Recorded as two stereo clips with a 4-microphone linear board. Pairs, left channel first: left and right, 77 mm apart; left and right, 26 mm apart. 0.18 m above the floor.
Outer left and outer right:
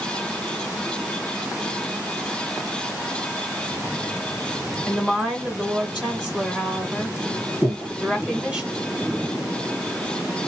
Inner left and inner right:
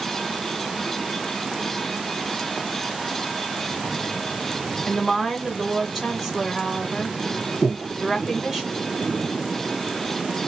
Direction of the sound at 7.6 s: 15° right (ahead or behind).